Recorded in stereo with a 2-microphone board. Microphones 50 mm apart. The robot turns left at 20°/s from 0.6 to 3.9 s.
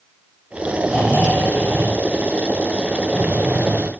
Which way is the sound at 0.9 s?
15° right.